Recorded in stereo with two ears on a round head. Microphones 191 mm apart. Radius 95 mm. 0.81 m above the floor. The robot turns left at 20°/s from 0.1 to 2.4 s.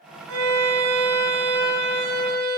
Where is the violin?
80° right, 4 m; by 2.6 s 120° right, 4 m.